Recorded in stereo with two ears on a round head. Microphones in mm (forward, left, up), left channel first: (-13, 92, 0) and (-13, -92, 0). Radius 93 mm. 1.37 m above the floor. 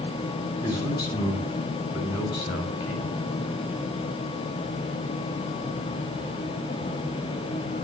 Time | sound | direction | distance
0.6 | a man speaking | 20° left (ahead or behind) | 9 m